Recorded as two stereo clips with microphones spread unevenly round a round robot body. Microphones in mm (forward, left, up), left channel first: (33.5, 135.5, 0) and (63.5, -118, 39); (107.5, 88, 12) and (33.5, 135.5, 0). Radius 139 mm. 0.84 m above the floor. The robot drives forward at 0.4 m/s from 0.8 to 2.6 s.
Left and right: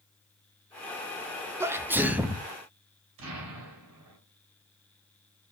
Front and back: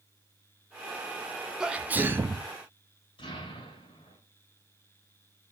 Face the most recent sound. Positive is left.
turn(degrees=-80)